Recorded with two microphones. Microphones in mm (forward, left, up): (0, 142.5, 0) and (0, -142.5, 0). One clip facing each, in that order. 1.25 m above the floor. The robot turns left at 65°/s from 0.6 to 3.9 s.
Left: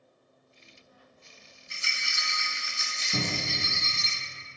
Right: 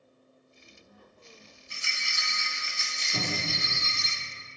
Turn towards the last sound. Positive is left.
turn(degrees=-5)